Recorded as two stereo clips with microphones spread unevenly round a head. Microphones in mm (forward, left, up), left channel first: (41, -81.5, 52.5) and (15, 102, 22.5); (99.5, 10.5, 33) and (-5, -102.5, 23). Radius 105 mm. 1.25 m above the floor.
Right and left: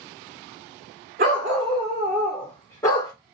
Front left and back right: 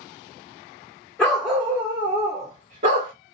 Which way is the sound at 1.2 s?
120° left.